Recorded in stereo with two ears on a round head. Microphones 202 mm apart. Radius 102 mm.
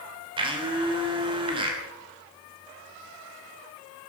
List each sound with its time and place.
0.4 s a blender: 25° right (ahead or behind), 2.5 m